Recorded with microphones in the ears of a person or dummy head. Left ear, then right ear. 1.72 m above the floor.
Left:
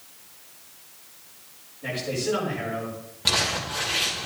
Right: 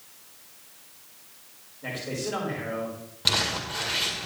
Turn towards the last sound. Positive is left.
turn(degrees=-10)  # may be behind; listen again after turning